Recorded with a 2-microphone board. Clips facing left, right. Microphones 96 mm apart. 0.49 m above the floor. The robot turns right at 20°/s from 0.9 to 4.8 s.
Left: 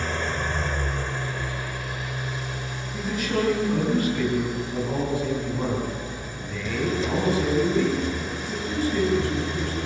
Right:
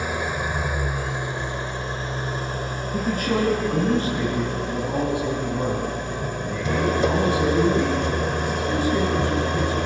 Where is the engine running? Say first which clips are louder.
Right 2 dB; 165° right, 1.2 m; by 9.9 s 90° right, 1.2 m.